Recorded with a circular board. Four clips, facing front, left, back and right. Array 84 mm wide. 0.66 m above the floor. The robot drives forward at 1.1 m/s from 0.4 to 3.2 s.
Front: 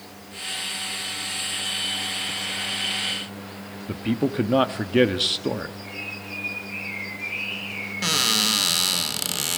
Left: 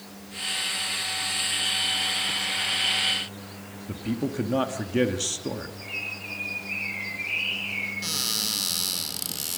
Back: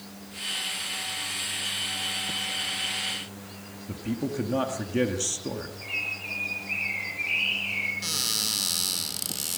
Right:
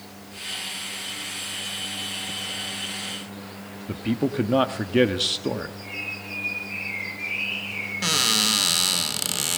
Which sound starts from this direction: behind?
A bird, at 5.8 s.